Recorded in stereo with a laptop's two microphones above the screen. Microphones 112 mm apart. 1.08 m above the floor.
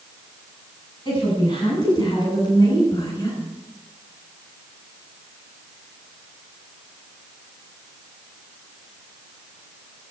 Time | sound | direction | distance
1.1 | a woman speaking | 45° left (ahead or behind) | 8 m